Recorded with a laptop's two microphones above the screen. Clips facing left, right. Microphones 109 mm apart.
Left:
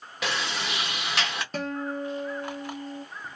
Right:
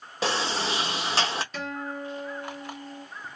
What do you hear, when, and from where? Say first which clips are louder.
0.2 s a sliding door: right 4 dB; 30° right (ahead or behind), 0.8 m
1.5 s a guitar: left 3 dB; 45° left (ahead or behind), 1.0 m